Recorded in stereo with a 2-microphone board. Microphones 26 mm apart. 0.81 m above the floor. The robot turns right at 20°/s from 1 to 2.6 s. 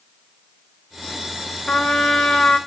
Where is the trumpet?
40° left (ahead or behind), 1.2 m; by 2.6 s 25° left (ahead or behind), 1.2 m.